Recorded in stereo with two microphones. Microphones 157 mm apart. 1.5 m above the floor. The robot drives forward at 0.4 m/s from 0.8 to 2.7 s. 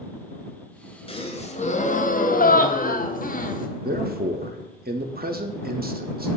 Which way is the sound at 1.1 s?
35° left (ahead or behind).